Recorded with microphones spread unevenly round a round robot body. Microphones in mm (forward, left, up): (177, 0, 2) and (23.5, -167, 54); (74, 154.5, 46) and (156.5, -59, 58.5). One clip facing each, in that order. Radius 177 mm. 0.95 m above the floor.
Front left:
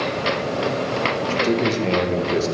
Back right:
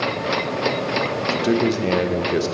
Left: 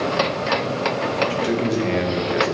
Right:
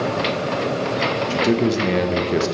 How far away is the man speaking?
About 1.3 m.